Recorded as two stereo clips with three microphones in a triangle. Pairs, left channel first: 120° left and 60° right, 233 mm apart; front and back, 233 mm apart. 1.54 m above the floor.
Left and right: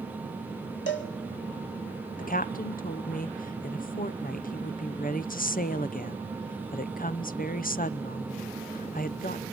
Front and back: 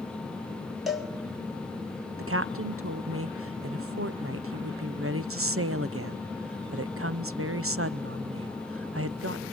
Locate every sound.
0.9 s a cowbell: 90° left, 2 m
2.2 s a woman speaking: 170° left, 0.6 m